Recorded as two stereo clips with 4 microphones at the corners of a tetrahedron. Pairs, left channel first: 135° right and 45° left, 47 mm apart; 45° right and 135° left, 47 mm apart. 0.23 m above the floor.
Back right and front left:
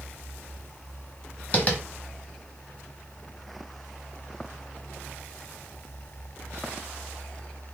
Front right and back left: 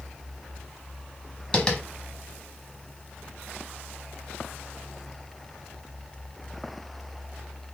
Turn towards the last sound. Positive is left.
turn(degrees=-100)